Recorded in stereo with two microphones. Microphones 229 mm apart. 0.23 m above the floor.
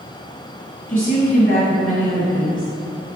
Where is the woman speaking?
35° left (ahead or behind), 1.5 m.